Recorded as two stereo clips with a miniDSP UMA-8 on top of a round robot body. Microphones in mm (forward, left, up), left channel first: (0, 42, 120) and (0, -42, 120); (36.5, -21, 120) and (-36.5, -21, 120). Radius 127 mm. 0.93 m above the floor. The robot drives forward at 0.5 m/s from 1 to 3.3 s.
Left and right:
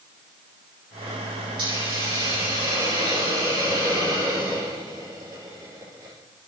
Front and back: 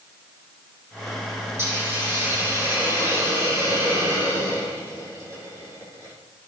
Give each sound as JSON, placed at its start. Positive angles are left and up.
{"t": 1.6, "sound": "a hiss", "azimuth_deg": -120, "distance_m": 8.0}